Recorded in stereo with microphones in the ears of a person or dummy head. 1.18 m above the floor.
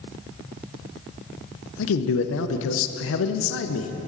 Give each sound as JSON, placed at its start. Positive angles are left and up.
{"t": 1.8, "sound": "a man speaking", "side_deg": 65, "distance_m": 0.5}